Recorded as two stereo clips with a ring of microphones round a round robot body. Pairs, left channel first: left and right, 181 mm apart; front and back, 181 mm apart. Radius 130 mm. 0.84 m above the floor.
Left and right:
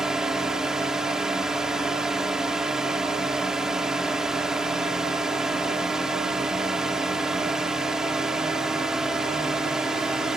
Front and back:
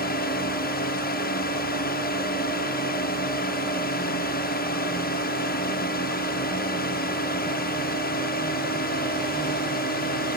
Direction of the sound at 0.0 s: 5° right.